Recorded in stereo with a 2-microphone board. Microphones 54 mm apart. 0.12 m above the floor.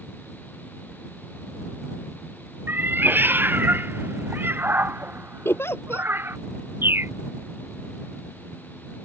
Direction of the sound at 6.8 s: 40° right (ahead or behind).